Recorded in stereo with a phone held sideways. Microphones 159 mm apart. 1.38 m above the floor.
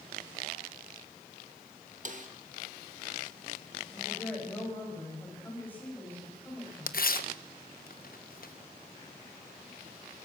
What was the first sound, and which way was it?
A snare drum, 50° right (ahead or behind).